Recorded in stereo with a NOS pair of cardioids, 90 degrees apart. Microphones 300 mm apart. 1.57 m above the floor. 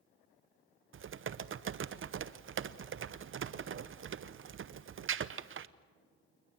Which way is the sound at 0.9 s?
45° right.